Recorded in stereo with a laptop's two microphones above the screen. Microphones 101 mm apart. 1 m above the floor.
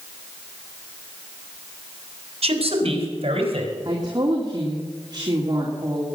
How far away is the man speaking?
About 3.5 m.